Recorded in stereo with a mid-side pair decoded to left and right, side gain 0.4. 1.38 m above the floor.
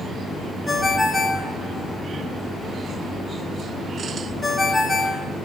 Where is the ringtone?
30° left, 5 m.